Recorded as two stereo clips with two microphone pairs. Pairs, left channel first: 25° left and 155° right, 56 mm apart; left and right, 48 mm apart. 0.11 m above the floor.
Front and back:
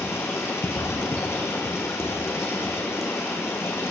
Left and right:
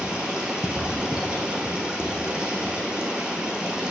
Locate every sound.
0.0 s running water: 15° right, 1.4 m